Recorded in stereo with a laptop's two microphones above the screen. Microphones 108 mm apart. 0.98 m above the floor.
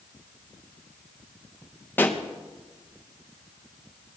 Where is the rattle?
No rattle in this recording.